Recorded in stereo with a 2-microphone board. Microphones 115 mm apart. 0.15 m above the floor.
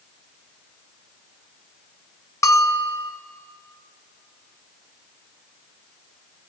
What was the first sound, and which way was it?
A bell, 25° left (ahead or behind).